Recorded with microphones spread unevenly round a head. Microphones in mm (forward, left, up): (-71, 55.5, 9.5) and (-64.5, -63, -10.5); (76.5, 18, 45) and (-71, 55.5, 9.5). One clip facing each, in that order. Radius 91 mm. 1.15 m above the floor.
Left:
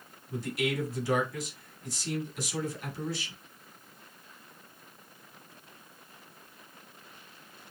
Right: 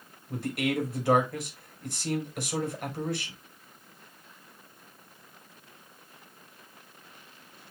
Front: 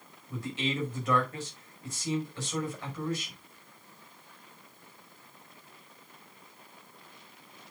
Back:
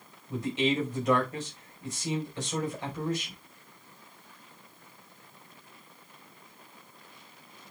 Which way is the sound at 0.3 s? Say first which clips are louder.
Right 2 dB, back 6 dB; 120° right.